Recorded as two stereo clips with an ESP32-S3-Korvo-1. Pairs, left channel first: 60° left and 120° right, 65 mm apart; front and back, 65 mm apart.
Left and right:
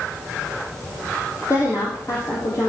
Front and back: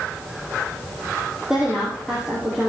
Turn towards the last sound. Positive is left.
turn(degrees=100)